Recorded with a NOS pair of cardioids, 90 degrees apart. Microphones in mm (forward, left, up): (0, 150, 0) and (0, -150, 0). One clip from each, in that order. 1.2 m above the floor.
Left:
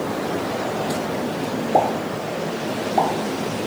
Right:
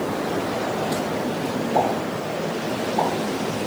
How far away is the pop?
About 0.8 m.